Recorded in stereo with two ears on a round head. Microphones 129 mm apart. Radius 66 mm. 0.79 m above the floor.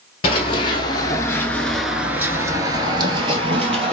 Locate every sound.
0.2 s running footsteps: 40° left (ahead or behind), 1.1 m; by 3.9 s 40° right (ahead or behind), 1.4 m